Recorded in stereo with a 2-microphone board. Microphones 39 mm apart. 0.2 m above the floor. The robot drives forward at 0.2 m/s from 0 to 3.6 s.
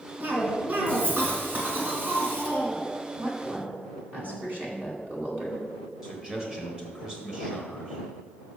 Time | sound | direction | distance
0.2 | a cough | 55° right (ahead or behind) | 2.5 m
3.2 | a woman speaking | 45° right (ahead or behind) | 2 m
6.0 | a man speaking | 25° right (ahead or behind) | 1.7 m